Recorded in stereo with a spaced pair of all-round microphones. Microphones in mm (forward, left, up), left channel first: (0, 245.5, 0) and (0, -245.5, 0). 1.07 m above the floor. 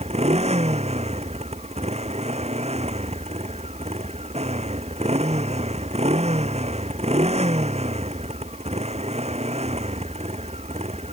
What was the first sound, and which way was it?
A motorcycle, 15° right (ahead or behind).